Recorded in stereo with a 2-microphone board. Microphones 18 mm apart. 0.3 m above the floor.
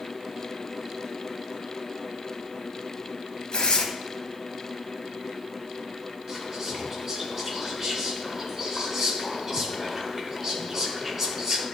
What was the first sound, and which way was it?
Tearing paper, 55° left (ahead or behind).